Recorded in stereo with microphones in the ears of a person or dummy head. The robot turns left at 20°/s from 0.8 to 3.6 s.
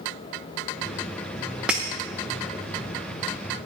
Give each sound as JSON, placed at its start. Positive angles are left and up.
{"t": 1.7, "sound": "breaking glass", "side_deg": -5, "distance_m": 0.9}